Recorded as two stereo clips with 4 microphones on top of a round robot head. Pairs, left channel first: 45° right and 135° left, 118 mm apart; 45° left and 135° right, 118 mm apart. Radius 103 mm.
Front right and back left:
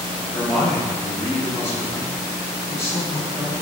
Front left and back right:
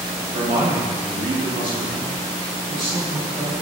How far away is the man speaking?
About 1.8 m.